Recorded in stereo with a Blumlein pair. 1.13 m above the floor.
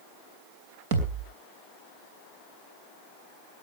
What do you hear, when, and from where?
0.9 s a thud: 55° right, 3 m